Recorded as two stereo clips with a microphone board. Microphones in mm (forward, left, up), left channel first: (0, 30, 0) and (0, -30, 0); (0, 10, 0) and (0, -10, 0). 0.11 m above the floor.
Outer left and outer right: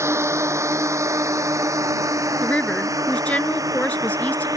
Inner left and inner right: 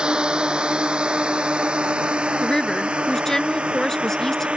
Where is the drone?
50° right (ahead or behind); by 4.6 s 70° right (ahead or behind).